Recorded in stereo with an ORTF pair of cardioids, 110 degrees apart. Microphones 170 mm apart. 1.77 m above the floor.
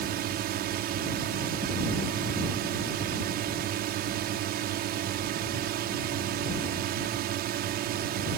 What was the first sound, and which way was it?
A drone, 70° right.